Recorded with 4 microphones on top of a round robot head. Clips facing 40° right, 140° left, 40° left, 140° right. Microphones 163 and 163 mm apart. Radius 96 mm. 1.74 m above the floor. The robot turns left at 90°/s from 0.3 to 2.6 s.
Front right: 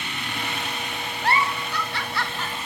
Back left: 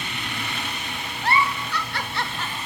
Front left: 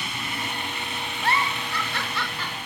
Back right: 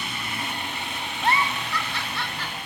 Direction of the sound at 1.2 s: 155° left.